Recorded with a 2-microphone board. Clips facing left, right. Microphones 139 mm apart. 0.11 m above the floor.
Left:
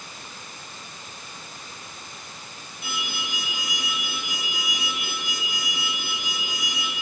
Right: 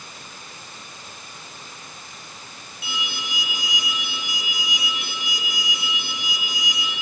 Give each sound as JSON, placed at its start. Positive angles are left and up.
{"t": 2.8, "sound": "an alarm", "side_deg": 50, "distance_m": 1.8}